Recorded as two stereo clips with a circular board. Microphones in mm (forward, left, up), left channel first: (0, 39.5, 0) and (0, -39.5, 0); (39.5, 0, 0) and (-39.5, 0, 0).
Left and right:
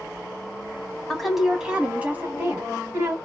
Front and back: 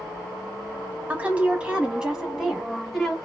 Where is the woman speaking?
170° left, 1.2 m; by 3.1 s 90° right, 1.5 m.